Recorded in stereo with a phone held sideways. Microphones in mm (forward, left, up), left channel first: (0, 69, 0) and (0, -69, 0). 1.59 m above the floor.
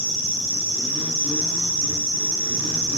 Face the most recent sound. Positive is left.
turn(degrees=45)  # may be behind; listen again after turning